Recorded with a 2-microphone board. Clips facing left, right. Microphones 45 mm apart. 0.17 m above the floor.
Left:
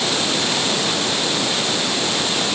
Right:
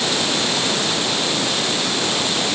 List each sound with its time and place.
Only background noise.